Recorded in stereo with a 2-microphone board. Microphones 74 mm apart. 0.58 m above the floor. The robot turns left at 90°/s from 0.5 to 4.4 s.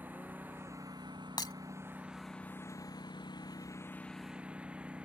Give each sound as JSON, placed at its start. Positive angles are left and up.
{"t": 0.0, "sound": "a lawn mower", "azimuth_deg": -25}
{"t": 1.4, "sound": "breaking glass", "side_deg": 75}